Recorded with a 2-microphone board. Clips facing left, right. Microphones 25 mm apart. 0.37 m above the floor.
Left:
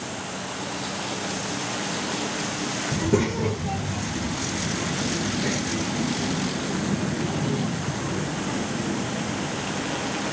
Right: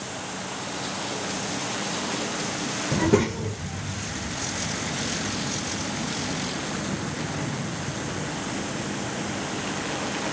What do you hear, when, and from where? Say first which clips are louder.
2.9 s a child speaking: right 2 dB; 45° right (ahead or behind); by 10.2 s 85° left